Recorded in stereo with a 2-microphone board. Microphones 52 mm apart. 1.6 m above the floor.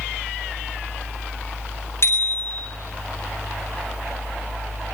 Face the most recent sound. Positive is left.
turn(degrees=55)  # may be behind; listen again after turning